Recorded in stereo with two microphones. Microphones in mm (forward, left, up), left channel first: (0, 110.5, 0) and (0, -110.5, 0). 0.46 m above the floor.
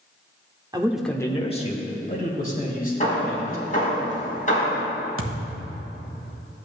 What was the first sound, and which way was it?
A man speaking, 20° right (ahead or behind).